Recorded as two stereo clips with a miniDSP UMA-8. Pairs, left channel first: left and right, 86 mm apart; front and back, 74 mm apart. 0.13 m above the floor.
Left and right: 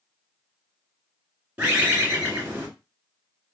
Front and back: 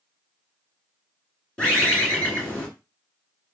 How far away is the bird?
About 1.7 m.